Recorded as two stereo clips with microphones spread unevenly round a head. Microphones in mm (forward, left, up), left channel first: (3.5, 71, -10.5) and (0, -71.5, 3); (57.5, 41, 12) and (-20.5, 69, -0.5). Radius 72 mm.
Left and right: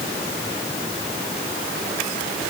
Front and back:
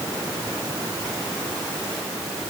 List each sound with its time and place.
Only background noise.